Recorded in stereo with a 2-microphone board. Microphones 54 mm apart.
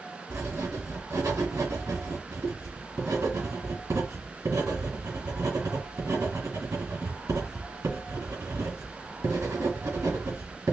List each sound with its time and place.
0.3 s writing: 75° right (ahead or behind), 2.5 m